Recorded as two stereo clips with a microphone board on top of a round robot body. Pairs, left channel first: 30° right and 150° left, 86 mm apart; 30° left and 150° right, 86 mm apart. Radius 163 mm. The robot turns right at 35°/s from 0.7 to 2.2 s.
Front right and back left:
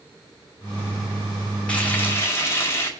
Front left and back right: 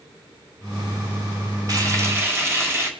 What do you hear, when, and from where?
1.7 s frying: 105° right, 1.9 m; by 2.9 s 90° right, 1.9 m